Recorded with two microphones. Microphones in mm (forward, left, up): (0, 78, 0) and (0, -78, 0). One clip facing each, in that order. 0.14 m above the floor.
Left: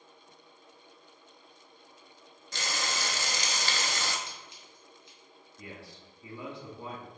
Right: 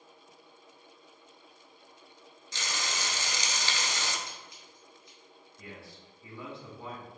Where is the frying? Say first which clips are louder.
Left 2 dB; 60° left (ahead or behind), 0.6 m.